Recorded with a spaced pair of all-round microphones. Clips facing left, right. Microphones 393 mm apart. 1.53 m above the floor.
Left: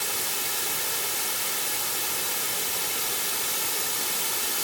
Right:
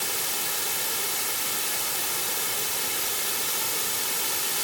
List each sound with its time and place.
Only background noise.